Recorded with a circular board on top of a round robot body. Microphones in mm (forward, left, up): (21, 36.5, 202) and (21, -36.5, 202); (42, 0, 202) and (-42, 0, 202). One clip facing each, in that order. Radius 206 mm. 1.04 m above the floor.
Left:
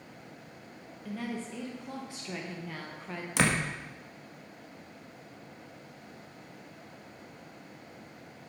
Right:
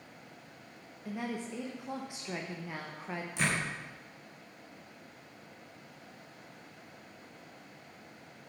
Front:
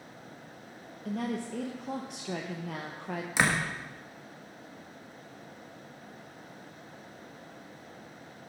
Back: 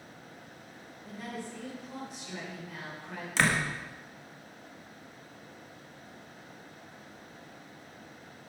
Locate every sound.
1.1 s a woman speaking: 15° right, 1.2 m
3.4 s a door slam: 80° left, 1.4 m